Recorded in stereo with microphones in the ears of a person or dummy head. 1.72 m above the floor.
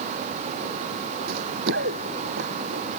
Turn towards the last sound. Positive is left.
turn(degrees=-70)  # may be behind; listen again after turning